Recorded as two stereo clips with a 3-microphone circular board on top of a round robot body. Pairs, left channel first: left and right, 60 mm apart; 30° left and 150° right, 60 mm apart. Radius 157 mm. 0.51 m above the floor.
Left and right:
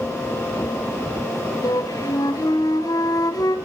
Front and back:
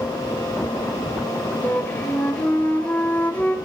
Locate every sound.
1.6 s a flute: 95° left, 3 m